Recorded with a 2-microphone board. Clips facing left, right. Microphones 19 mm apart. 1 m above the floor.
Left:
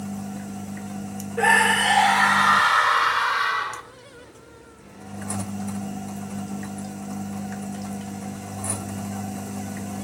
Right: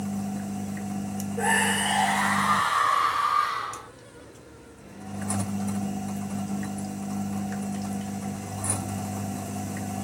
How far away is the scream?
About 3.5 m.